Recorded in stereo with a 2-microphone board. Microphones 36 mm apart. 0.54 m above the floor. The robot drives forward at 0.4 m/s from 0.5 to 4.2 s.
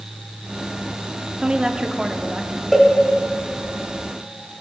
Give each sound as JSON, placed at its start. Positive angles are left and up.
{"t": 1.4, "sound": "a woman speaking", "side_deg": -25, "distance_m": 0.7}
{"t": 2.7, "sound": "a cowbell", "side_deg": 0, "distance_m": 1.3}